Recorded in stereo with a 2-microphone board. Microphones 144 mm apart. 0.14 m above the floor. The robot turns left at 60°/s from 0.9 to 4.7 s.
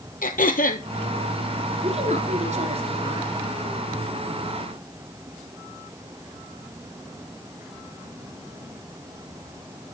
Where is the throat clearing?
75° left (ahead or behind), 1.0 m.